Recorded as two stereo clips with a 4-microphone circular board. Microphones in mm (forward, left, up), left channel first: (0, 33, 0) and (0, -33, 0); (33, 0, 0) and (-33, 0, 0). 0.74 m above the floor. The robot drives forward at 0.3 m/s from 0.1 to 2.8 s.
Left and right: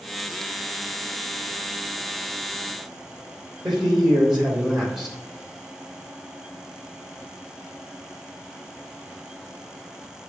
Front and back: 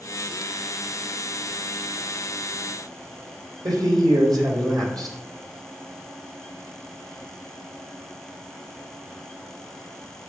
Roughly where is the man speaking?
Behind.